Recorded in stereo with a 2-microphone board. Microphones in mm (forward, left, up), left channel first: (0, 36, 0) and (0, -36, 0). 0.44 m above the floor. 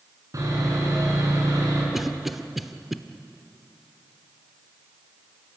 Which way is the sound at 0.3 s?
50° right (ahead or behind).